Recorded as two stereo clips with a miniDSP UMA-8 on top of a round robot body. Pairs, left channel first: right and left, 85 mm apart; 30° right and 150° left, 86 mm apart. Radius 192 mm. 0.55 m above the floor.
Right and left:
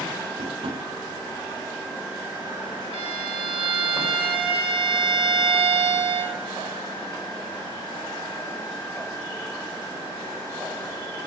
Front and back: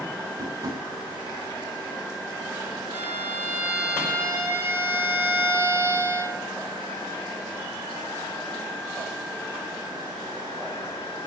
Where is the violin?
85° left, 1.2 m.